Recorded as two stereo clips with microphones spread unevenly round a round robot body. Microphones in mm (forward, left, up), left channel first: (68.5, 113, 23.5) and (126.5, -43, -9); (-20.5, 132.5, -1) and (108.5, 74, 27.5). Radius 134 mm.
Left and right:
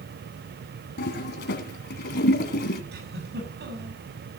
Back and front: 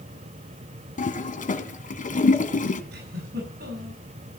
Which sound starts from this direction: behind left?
A toilet flushing, at 1.0 s.